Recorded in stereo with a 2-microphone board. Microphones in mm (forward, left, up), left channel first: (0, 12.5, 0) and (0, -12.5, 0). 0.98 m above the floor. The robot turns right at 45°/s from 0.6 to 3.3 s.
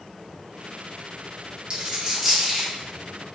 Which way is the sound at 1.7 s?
35° right (ahead or behind).